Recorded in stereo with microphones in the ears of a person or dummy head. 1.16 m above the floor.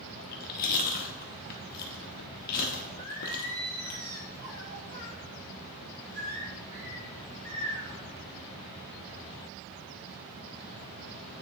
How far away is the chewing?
About 1.0 m.